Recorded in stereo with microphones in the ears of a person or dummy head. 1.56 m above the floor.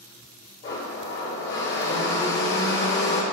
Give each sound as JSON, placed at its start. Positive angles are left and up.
{"t": 0.6, "sound": "a blender", "side_deg": 60, "distance_m": 1.8}